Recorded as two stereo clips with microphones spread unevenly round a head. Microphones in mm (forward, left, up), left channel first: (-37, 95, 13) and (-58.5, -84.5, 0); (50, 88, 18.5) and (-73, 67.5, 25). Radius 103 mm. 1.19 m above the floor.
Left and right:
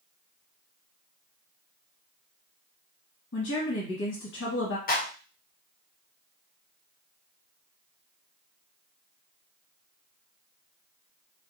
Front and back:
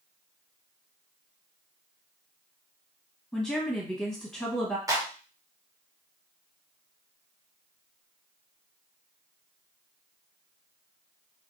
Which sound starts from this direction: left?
A woman speaking, at 3.3 s.